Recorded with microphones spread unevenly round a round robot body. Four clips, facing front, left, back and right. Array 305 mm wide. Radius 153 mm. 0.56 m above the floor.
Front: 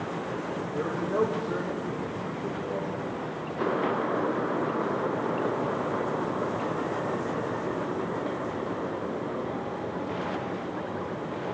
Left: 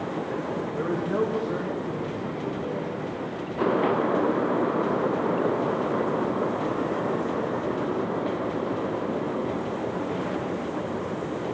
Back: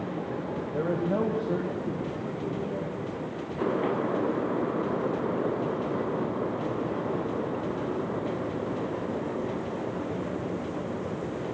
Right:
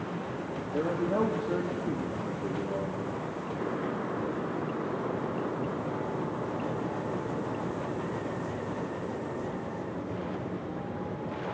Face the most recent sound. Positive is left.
turn(degrees=-145)